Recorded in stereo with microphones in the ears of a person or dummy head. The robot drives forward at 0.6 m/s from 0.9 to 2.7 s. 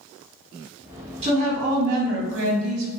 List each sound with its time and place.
1.2 s a woman speaking: 35° right (ahead or behind), 1.1 m; by 2.9 s 80° right, 0.7 m